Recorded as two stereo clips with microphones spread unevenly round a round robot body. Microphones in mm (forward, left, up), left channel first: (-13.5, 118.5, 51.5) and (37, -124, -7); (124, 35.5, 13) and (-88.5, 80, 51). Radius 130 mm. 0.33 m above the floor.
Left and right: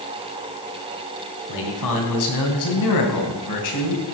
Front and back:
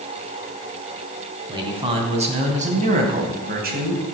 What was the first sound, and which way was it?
A man speaking, 95° left.